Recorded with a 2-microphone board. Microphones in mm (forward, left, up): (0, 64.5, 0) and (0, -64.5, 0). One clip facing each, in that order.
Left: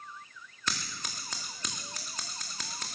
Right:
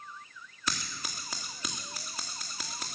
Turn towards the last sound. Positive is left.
turn(degrees=-10)  # may be behind; listen again after turning